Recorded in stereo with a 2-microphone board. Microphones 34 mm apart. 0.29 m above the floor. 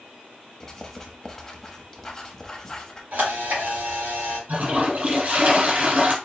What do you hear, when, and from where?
0.6 s writing: 10° left (ahead or behind), 0.9 m
3.1 s a camera shutter: 80° right, 3 m
4.5 s a toilet flushing: 60° right (ahead or behind), 2 m